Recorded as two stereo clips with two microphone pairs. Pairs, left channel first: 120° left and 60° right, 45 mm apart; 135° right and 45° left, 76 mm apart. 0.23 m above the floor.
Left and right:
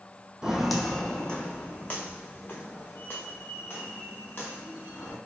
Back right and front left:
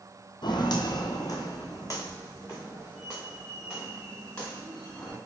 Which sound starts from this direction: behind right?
Footsteps, at 0.4 s.